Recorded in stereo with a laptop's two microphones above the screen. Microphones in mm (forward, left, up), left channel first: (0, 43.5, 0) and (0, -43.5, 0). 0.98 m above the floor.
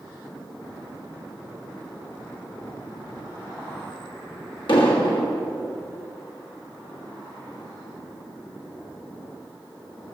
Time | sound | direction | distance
4.7 | an explosion | 70° left (ahead or behind) | 1.5 m